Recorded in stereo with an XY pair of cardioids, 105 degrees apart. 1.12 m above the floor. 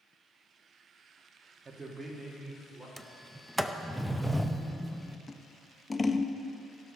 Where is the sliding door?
Straight ahead, 0.6 m.